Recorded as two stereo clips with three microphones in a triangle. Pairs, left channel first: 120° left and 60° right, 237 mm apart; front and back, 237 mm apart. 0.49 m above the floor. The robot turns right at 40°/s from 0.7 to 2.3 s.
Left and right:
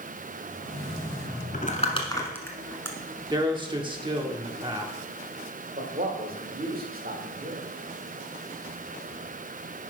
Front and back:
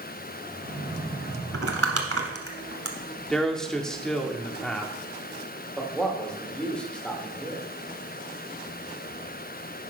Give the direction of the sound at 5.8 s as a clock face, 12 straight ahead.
3 o'clock.